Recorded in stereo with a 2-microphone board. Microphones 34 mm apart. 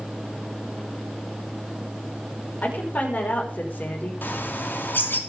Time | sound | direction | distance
2.6 | a woman speaking | 55° left (ahead or behind) | 5.5 m
4.2 | a bird | 90° left | 3 m